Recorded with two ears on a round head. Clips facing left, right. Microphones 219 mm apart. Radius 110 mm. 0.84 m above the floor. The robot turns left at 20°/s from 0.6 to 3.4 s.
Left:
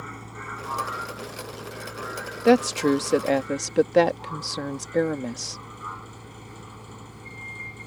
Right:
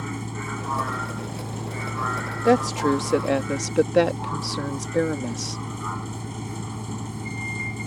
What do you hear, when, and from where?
0.0 s a vehicle: 55° right; by 7.9 s 110° right
2.5 s a woman speaking: 10° left (ahead or behind); by 5.6 s 5° right (ahead or behind)